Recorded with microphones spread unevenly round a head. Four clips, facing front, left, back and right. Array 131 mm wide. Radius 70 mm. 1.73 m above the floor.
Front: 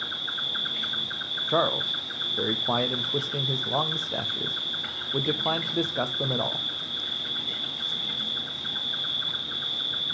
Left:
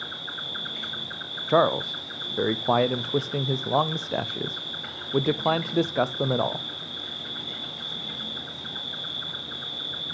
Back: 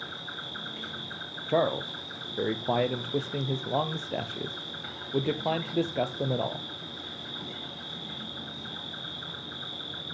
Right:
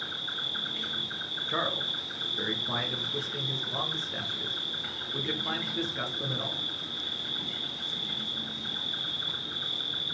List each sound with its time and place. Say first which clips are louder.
0.0 s an insect: left 2 dB, front 3 dB; 115° left, 1.8 m
1.5 s a man speaking: left 12 dB, even; 100° left, 0.6 m